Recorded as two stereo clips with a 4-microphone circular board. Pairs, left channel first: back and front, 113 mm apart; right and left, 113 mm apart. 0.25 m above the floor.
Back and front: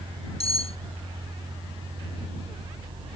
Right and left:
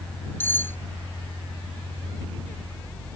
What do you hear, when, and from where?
0.4 s cutlery clinking: 160° right